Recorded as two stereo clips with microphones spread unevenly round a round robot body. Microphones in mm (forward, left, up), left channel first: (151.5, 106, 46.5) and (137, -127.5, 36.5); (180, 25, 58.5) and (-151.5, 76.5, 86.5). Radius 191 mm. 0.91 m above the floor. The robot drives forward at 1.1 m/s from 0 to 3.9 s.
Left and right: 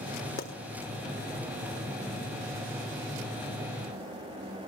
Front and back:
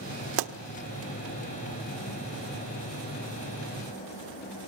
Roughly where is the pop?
Behind left.